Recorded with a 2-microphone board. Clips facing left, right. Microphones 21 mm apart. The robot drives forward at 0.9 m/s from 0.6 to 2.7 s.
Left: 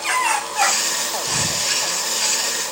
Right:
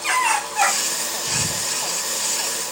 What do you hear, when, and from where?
1.3 s breathing: 30° left (ahead or behind)